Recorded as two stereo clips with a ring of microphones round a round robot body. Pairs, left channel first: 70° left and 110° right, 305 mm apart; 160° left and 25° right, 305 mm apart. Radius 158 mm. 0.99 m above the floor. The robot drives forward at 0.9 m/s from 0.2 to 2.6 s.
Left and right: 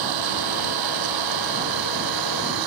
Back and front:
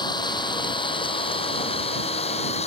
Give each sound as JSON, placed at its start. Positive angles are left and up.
{"t": 0.0, "sound": "an engine running", "azimuth_deg": -125}